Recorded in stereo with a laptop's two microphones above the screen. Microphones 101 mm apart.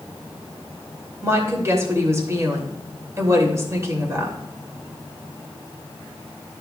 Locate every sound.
1.2 s a woman speaking: 30° right (ahead or behind), 2.5 m